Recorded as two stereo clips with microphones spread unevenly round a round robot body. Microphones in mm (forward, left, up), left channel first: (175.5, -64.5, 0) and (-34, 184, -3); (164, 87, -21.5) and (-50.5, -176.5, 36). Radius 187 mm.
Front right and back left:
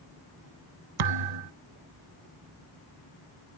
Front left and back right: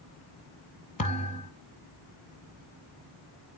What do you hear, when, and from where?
1.0 s a thud: 125° left, 0.8 m